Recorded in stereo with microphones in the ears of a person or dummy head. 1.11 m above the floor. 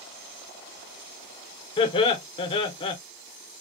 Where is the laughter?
30° left (ahead or behind), 0.6 m.